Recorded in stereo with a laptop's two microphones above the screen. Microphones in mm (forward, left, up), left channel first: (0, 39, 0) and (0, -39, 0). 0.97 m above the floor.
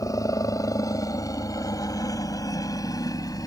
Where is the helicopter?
45° left (ahead or behind); by 3.5 s 50° left (ahead or behind).